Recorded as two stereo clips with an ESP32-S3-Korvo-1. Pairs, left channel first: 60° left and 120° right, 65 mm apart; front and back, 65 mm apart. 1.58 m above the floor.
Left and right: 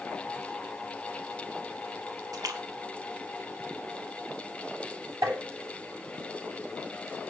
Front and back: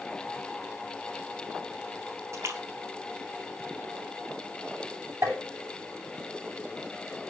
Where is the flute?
No flute in this recording.